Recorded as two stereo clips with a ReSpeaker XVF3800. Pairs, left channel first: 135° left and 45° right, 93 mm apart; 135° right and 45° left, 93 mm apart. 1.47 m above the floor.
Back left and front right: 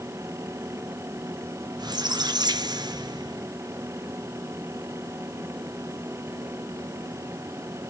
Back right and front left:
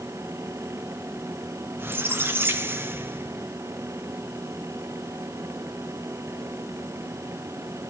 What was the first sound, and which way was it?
A squeak, 15° right.